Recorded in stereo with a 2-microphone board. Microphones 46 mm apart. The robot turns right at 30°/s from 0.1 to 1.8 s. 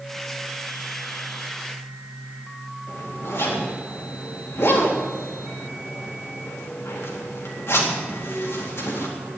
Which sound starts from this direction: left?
A zipper, at 2.9 s.